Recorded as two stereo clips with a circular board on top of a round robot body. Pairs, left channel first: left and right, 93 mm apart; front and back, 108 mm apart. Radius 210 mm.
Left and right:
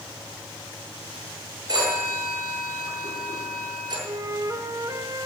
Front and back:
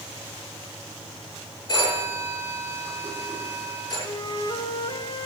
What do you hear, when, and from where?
1.7 s a phone ringing: 50° right, 9 m
4.0 s a flute: 40° right, 1.2 m